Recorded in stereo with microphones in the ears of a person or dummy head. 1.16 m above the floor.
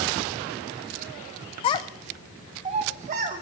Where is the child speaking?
30° left (ahead or behind), 0.6 m; by 3.4 s 50° right (ahead or behind), 1.3 m.